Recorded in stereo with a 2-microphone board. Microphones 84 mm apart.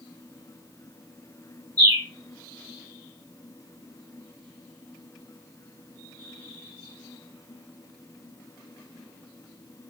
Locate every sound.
1.8 s a bird: 50° right (ahead or behind), 2.5 m